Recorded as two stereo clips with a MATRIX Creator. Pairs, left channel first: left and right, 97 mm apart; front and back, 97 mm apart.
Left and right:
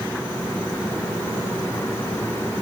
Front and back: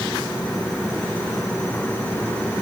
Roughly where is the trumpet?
I don't hear a trumpet.